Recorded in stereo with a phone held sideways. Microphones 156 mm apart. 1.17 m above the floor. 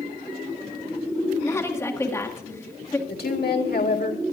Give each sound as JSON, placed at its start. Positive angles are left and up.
{"t": 1.4, "sound": "a woman speaking", "side_deg": 15, "distance_m": 1.8}
{"t": 3.1, "sound": "a woman speaking", "side_deg": 80, "distance_m": 1.7}